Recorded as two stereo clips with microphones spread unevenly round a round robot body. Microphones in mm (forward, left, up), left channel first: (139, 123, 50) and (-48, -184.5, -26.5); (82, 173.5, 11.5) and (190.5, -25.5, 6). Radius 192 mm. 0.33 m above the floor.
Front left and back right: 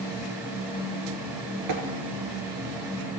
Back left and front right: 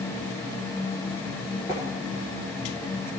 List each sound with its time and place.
1.7 s tapping: 165° right, 1.0 m